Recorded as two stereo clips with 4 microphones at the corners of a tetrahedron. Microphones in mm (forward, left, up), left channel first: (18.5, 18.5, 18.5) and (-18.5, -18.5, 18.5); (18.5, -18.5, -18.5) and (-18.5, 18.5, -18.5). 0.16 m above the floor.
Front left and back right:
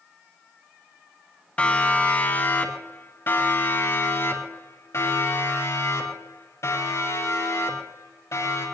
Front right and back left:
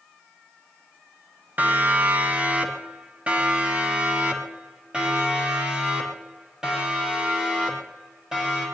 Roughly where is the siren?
Left.